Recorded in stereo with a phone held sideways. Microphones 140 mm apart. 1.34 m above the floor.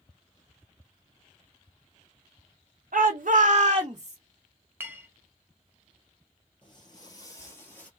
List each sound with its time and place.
2.9 s a shout: 75° right (ahead or behind), 0.5 m; by 4.2 s 20° right (ahead or behind), 0.7 m
4.8 s a clink: 15° right (ahead or behind), 0.7 m
6.6 s footsteps: 35° left (ahead or behind), 1.6 m; by 7.9 s 10° left (ahead or behind), 1.5 m